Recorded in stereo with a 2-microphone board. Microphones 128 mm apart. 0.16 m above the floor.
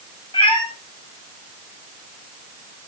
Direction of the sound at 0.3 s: 40° left (ahead or behind).